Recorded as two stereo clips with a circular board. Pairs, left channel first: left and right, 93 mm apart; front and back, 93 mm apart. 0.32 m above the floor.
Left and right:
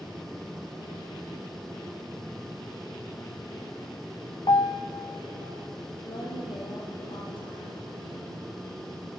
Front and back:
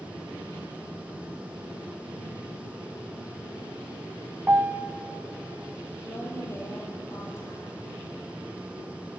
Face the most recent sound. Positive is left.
turn(degrees=60)